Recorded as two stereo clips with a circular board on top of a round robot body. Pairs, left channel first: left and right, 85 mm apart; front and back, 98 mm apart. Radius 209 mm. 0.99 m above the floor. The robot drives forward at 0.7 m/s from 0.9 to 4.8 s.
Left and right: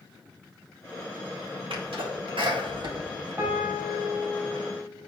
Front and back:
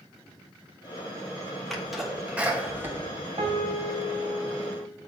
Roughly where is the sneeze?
Right.